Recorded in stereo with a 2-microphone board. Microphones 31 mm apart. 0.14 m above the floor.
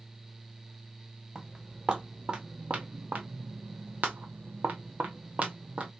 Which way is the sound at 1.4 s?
25° right (ahead or behind).